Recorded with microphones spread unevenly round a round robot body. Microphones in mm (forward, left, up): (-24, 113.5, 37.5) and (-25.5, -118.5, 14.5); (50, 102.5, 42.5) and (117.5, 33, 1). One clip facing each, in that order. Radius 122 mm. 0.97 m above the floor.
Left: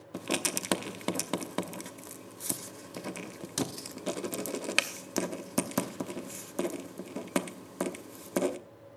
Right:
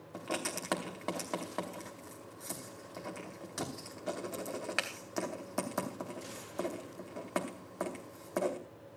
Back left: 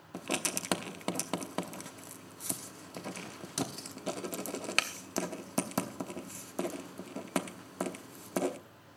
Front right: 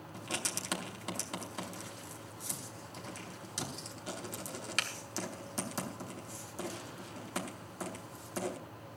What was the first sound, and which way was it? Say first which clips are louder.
Writing: left 5 dB, back left 6 dB; 130° left.